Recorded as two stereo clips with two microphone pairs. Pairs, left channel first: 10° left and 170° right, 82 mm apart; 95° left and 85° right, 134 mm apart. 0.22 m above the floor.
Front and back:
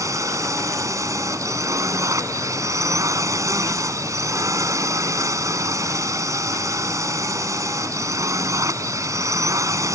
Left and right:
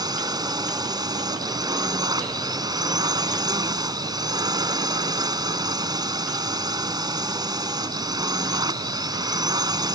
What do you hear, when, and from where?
0.0 s a drone: 135° right